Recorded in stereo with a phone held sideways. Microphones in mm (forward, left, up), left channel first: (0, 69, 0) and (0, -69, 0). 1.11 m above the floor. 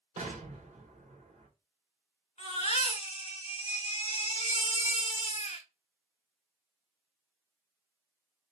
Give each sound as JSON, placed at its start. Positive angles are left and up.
{"t": 0.2, "sound": "an explosion", "side_deg": -55, "distance_m": 1.4}
{"t": 2.4, "sound": "a baby crying", "side_deg": 50, "distance_m": 1.9}